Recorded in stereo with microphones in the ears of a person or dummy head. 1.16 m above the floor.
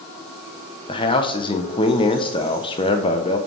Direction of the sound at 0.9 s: 20° left (ahead or behind).